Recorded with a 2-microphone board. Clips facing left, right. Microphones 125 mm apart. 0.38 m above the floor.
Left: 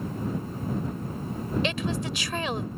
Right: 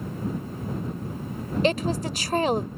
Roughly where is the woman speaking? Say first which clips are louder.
Right 5 dB; right.